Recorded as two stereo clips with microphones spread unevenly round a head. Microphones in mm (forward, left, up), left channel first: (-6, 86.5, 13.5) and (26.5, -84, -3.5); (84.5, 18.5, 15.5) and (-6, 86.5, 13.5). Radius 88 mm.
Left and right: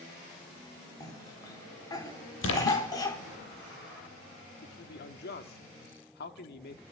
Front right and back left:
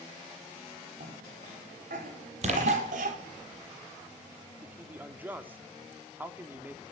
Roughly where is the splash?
Behind left.